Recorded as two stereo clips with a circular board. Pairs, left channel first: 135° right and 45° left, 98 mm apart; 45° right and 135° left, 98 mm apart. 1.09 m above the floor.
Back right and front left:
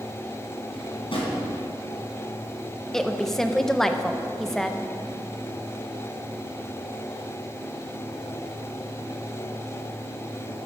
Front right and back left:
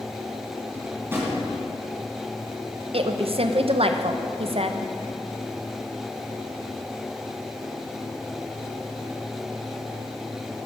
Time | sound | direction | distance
0.7 | a drawer | 160° right | 3 m
2.9 | a woman speaking | 140° left | 0.6 m